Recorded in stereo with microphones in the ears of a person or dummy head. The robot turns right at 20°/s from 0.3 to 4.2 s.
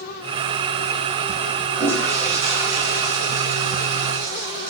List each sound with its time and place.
1.8 s a toilet flushing: 165° left, 0.8 m; by 4.7 s 150° right, 0.8 m